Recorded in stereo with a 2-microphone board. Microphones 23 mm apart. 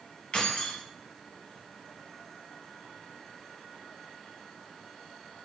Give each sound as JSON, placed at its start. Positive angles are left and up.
{"t": 0.3, "sound": "keys jangling", "side_deg": 45, "distance_m": 1.0}